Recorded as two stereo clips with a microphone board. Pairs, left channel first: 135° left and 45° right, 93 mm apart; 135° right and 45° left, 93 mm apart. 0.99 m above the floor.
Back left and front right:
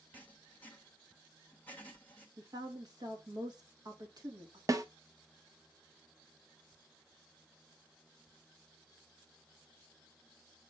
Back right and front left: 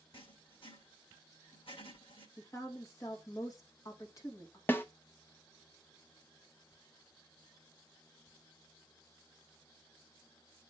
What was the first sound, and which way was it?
Writing, 155° right.